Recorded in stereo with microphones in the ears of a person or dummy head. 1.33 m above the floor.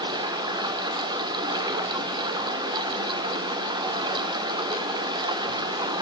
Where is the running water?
20° right (ahead or behind), 2 m.